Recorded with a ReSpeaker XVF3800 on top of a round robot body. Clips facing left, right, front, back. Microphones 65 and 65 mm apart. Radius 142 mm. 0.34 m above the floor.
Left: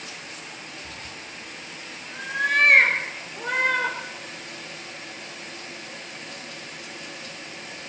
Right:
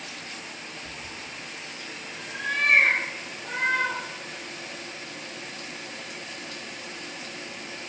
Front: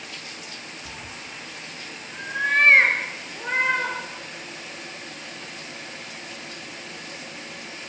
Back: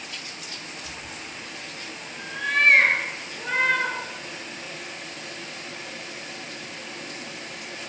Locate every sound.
0.8 s a cat meowing: 20° left, 2.5 m; by 4.0 s 75° left, 5 m